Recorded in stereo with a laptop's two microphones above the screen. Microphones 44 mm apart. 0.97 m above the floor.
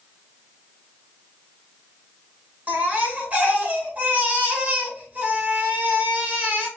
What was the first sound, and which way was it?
A baby crying, 35° right (ahead or behind).